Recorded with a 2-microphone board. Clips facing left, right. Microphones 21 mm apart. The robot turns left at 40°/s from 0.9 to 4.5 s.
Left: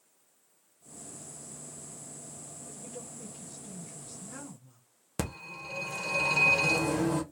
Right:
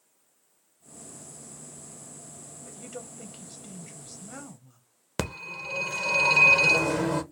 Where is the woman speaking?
85° right, 1.1 m; by 4.8 s 160° right, 1.1 m.